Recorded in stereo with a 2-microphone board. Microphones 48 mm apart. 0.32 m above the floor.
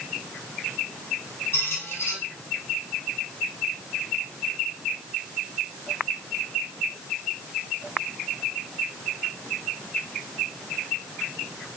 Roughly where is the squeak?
Left.